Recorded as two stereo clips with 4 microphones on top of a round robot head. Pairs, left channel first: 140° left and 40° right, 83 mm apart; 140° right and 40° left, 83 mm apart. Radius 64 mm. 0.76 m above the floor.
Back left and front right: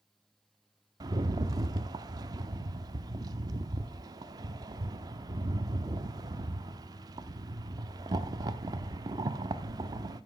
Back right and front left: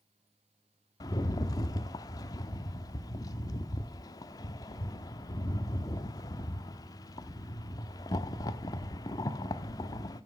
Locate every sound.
1.0 s a rattle: 90° right, 0.7 m